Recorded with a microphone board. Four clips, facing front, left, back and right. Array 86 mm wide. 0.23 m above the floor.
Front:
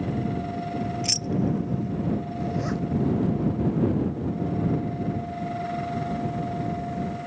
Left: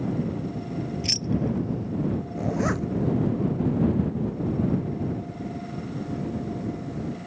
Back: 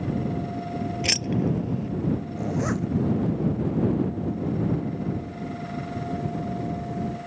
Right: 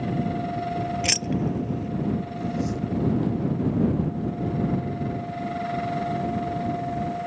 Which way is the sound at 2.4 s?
110° left.